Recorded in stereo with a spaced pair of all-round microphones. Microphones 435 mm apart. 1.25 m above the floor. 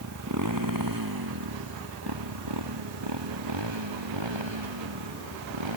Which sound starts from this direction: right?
A motorcycle, at 0.0 s.